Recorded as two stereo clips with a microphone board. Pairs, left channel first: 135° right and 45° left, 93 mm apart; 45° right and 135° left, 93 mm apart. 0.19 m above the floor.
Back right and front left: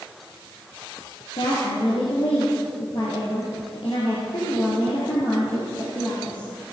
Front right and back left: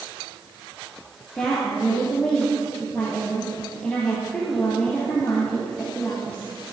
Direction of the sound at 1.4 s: 130° right.